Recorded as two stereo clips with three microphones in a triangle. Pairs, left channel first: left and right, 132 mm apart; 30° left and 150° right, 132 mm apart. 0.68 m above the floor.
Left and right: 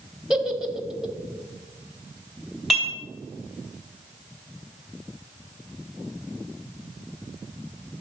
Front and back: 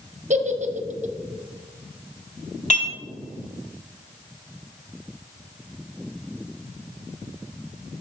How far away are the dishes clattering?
About 2.5 m.